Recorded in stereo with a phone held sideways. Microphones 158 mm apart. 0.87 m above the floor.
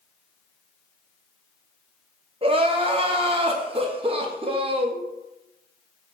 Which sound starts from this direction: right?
Crying, at 2.4 s.